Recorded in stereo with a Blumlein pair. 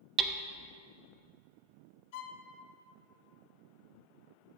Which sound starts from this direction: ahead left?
A violin, at 2.1 s.